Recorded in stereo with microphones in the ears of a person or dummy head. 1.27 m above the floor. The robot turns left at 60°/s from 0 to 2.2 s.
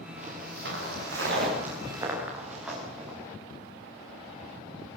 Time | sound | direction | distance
0.2 | footsteps | 45° right (ahead or behind) | 9.5 m